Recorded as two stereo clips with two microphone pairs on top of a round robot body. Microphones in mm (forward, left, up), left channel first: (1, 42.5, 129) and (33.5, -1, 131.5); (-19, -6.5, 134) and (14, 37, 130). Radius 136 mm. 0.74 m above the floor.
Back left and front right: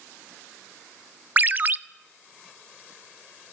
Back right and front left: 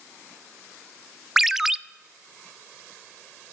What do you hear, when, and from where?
1.4 s a ringtone: 20° right, 0.5 m